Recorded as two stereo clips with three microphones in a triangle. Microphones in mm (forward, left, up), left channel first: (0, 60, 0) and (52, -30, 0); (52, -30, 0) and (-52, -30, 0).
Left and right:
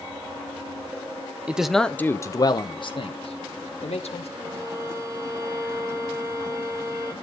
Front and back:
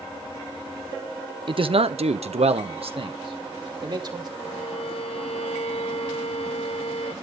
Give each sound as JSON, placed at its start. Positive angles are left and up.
{"t": 1.5, "sound": "a man speaking", "azimuth_deg": -140, "distance_m": 1.0}
{"t": 4.4, "sound": "a violin", "azimuth_deg": -5, "distance_m": 4.5}